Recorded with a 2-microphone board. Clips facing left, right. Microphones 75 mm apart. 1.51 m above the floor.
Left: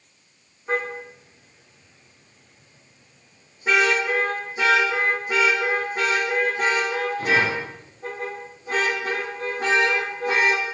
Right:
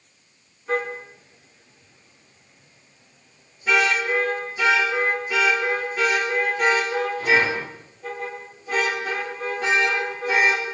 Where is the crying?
No crying in this recording.